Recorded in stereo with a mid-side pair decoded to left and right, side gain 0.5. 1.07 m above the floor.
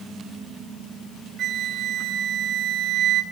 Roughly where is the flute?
Ahead right.